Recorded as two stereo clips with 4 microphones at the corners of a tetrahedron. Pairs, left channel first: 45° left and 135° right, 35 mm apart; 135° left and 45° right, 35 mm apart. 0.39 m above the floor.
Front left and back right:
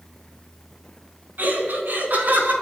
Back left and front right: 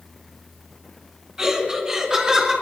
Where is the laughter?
115° right, 3.5 m.